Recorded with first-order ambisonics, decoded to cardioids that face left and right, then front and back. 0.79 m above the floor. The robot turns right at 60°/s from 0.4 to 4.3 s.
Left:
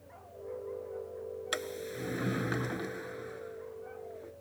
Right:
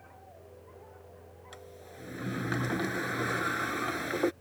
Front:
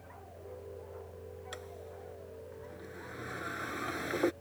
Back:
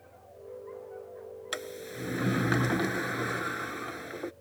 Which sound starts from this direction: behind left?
A sliding door, at 1.5 s.